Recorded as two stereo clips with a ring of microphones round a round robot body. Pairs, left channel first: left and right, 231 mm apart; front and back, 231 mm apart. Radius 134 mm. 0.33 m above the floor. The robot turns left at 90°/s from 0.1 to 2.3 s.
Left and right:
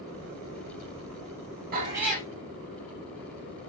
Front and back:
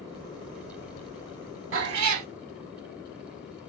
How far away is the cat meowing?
About 1.3 m.